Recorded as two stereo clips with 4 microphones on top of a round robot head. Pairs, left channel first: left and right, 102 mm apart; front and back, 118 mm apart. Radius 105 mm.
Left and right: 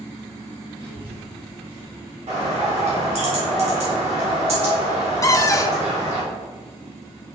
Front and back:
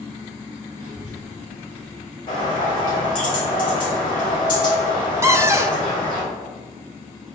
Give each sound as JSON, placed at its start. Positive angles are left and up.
{"t": 0.8, "sound": "a child speaking", "azimuth_deg": -130, "distance_m": 1.7}
{"t": 2.3, "sound": "a bird", "azimuth_deg": -60, "distance_m": 1.8}
{"t": 5.2, "sound": "a cupboard door", "azimuth_deg": 125, "distance_m": 0.8}